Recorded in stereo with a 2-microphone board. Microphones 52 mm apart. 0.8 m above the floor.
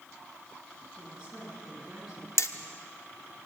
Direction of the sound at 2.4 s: 65° left (ahead or behind).